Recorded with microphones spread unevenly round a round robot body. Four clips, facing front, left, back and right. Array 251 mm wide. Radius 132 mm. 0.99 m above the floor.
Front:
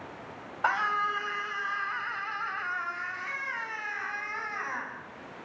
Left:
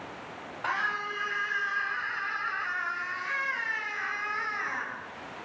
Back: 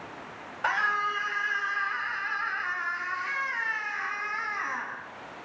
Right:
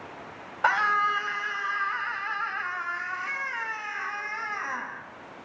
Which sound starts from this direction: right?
A scream, at 0.6 s.